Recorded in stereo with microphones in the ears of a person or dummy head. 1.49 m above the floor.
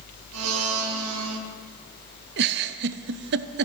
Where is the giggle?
55° right (ahead or behind), 0.6 m.